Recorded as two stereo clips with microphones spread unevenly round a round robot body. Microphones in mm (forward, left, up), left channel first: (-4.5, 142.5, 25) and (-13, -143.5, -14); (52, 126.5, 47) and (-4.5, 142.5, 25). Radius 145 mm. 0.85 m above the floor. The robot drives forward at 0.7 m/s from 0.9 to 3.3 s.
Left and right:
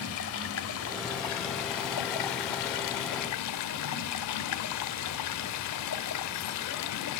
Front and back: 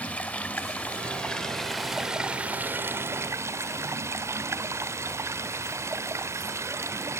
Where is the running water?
45° left, 1.6 m; by 7.2 s 115° left, 1.3 m.